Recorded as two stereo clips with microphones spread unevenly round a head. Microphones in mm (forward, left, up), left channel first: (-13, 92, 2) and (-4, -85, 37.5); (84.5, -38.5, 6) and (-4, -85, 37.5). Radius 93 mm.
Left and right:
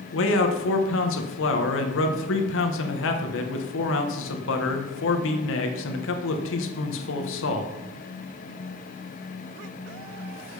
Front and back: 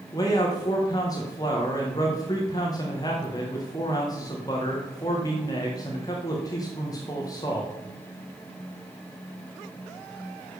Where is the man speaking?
95° left, 1.6 m.